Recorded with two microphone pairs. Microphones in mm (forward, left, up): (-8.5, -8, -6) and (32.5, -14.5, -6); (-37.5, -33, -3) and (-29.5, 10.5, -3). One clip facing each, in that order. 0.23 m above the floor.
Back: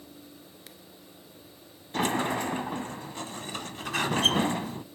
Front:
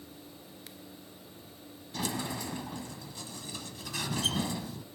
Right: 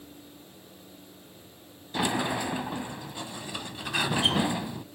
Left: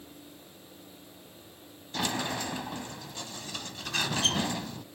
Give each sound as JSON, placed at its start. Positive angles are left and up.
{"t": 1.9, "sound": "a sliding door", "azimuth_deg": -165, "distance_m": 0.5}